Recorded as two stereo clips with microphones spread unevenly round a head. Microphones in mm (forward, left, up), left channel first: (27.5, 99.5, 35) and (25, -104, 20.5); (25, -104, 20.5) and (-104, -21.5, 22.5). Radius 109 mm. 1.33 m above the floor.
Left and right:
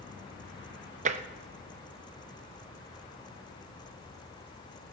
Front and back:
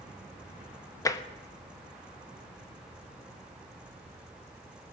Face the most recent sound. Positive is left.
turn(degrees=-75)